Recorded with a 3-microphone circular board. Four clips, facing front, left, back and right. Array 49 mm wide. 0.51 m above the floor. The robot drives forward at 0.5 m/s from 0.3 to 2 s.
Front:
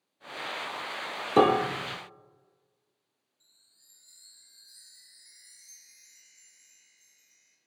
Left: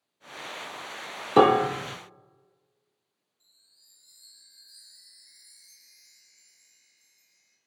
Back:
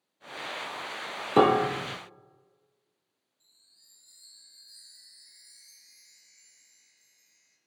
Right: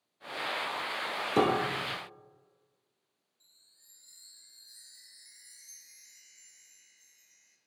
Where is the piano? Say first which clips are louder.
Left 9 dB, back 1 dB; 95° left, 0.6 m; by 2.0 s 135° left, 0.7 m.